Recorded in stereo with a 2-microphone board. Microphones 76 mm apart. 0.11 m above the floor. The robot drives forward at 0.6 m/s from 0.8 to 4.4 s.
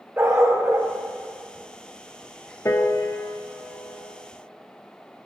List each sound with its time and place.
0.2 s a dog barking: 25° right (ahead or behind), 3.5 m
2.6 s a piano: 45° left (ahead or behind), 0.8 m; by 4.2 s 25° left (ahead or behind), 1.3 m